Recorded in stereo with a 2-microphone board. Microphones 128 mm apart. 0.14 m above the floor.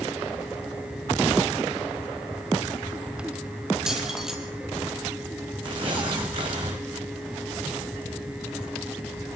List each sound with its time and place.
3.9 s keys jangling: 5° right (ahead or behind), 3.5 m
5.6 s tearing paper: 40° right (ahead or behind), 5.5 m